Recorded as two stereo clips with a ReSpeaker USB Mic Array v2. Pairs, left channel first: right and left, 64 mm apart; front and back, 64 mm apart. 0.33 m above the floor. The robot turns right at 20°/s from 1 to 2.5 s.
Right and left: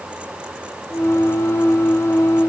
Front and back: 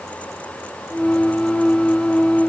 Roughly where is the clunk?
No clunk in this recording.